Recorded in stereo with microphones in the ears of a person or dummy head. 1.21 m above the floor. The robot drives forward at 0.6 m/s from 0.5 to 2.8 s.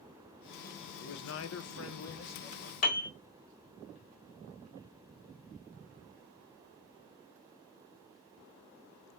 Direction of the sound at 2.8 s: 40° left (ahead or behind).